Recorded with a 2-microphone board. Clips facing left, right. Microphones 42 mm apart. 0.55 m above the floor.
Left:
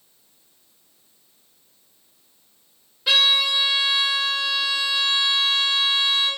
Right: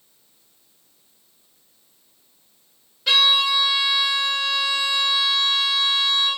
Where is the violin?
10° left (ahead or behind), 1.7 m.